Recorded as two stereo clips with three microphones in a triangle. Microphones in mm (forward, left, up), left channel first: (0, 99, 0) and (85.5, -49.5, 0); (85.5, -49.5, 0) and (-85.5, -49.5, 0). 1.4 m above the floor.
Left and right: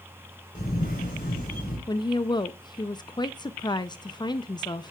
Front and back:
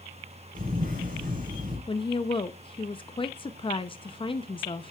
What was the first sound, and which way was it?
A camera shutter, 150° left.